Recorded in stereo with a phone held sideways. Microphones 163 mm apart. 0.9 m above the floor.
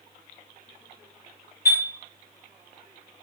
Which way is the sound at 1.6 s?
70° left (ahead or behind).